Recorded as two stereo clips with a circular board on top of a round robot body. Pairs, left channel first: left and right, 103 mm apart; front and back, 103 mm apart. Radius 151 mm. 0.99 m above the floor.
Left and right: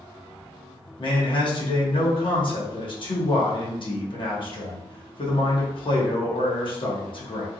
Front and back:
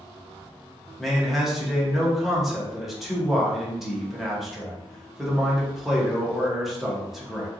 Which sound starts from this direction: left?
A man speaking, at 1.0 s.